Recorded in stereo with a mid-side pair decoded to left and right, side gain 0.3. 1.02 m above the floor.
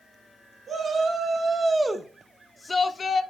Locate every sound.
0.7 s a shout: 55° right, 2 m; by 3.2 s 65° left, 1.2 m